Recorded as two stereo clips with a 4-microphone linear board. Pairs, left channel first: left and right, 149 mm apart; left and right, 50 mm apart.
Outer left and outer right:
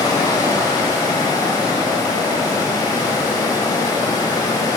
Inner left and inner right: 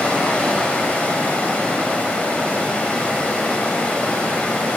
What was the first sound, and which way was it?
Running water, 30° left (ahead or behind).